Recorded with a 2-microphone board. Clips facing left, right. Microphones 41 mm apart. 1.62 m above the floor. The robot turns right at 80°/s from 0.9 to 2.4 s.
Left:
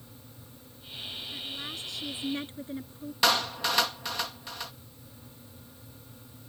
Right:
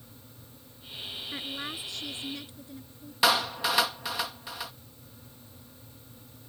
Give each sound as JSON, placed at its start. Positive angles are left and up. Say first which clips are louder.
{"t": 1.3, "sound": "a woman speaking", "louder": "right 4 dB", "azimuth_deg": -50}
{"t": 3.2, "sound": "a clap", "louder": "right 1 dB", "side_deg": -5}